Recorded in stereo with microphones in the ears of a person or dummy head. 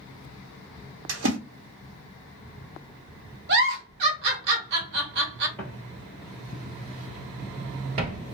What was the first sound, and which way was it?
A splash, 75° right (ahead or behind).